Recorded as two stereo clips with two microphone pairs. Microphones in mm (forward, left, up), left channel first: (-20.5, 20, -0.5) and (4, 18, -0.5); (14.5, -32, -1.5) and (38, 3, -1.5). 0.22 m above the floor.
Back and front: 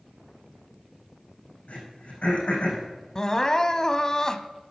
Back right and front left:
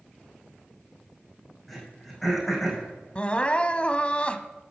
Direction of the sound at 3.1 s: 150° right.